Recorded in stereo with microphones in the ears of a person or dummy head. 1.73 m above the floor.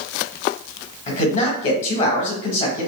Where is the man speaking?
40° left (ahead or behind), 1.1 m.